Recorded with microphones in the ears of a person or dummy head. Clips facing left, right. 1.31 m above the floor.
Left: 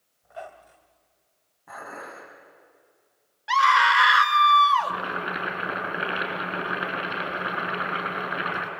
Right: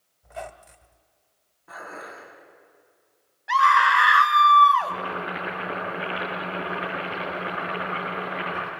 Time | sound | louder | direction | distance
0.2 | a squeak | right 3 dB | 25° right (ahead or behind) | 1.9 m
1.7 | dishes clattering | even | 80° left | 7.5 m
3.5 | a scream | right 1 dB | 35° left (ahead or behind) | 2.5 m
4.8 | boiling | right 1 dB | 35° left (ahead or behind) | 6 m